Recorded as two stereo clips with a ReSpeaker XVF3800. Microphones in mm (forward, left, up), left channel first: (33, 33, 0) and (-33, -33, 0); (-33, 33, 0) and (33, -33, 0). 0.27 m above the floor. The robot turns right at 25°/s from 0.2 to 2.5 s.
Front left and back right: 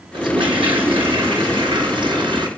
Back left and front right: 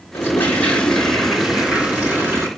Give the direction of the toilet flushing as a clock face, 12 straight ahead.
5 o'clock.